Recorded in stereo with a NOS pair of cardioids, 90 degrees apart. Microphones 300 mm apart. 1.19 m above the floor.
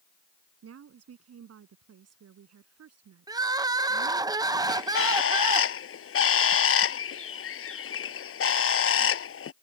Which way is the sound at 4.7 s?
50° left.